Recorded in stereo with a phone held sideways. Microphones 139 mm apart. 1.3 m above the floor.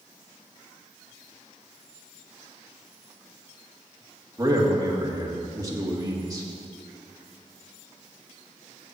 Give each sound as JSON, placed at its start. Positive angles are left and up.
{"t": 4.4, "sound": "a man speaking", "side_deg": -25, "distance_m": 1.8}